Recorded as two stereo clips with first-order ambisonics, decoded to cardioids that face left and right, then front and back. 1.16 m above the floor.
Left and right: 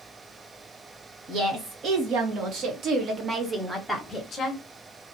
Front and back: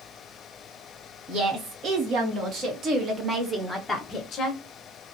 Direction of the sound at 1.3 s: 135° right.